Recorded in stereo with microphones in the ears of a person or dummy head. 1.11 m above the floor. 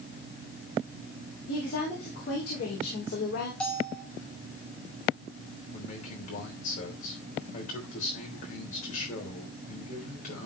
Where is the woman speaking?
55° left (ahead or behind), 4.5 m; by 3.5 s 65° left (ahead or behind), 4 m.